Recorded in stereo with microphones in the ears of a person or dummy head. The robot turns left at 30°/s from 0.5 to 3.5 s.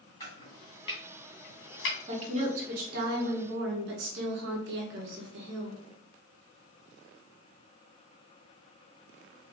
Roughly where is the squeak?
I don't hear a squeak.